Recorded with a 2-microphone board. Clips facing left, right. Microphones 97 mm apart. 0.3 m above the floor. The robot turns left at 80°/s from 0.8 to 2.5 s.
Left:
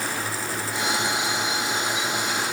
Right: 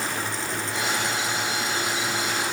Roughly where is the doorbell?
I don't hear a doorbell.